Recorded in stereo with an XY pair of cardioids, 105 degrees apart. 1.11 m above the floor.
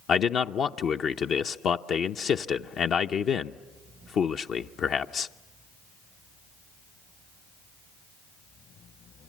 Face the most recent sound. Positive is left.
turn(degrees=60)